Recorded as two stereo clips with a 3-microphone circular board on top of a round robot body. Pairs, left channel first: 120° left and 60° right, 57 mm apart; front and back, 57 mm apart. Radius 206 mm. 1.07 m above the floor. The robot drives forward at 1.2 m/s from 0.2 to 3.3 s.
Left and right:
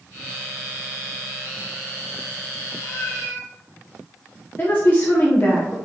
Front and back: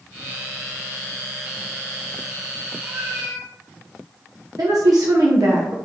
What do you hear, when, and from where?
2.8 s a cat meowing: 120° left, 3 m; by 3.5 s 130° left, 3.5 m
4.6 s a woman speaking: 175° left, 1.1 m